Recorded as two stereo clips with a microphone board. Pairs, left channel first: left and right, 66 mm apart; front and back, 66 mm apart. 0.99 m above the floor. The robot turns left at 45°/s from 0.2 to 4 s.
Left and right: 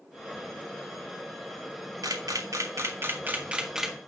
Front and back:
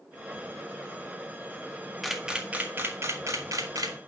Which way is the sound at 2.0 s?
90° right.